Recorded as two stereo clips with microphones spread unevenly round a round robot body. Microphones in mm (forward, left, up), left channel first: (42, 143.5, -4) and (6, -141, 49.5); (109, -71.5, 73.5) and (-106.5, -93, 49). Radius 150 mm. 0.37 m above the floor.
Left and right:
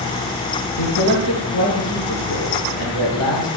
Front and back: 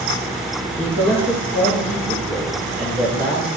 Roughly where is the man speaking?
Behind left.